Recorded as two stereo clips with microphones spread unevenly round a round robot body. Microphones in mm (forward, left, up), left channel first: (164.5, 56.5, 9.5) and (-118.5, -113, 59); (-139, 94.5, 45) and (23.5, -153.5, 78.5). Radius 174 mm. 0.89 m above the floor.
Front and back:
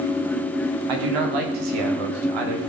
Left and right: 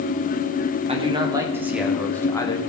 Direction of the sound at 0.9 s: 130° right.